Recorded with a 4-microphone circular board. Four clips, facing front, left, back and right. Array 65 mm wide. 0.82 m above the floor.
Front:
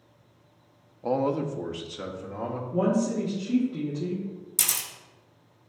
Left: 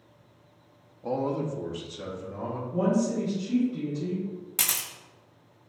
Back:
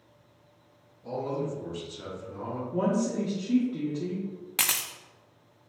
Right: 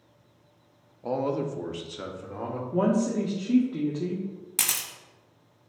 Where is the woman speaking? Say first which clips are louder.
Right 1 dB, front 2 dB; 95° right, 1.2 m.